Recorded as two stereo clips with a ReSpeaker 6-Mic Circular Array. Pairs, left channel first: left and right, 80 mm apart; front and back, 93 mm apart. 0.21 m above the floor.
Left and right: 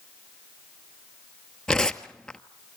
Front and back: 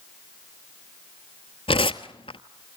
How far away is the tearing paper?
About 0.9 m.